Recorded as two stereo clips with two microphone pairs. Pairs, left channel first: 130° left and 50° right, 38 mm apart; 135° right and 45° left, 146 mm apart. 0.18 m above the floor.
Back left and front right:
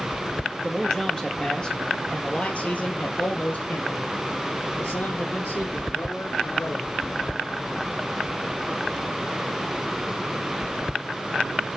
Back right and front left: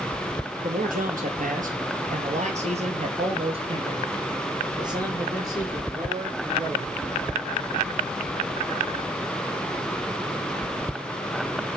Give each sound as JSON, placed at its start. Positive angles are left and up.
{"t": 0.6, "sound": "a man speaking", "azimuth_deg": 50, "distance_m": 3.5}